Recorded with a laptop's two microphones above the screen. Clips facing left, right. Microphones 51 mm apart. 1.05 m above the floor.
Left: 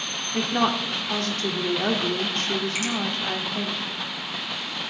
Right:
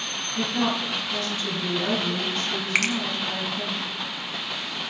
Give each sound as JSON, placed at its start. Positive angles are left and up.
{"t": 0.3, "sound": "a woman speaking", "side_deg": 65, "distance_m": 2.5}
{"t": 2.8, "sound": "a finger snap", "side_deg": -70, "distance_m": 0.9}